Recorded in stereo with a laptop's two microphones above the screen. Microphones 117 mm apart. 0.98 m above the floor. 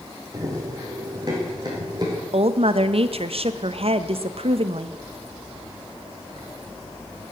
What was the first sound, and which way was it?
Running footsteps, 30° right (ahead or behind).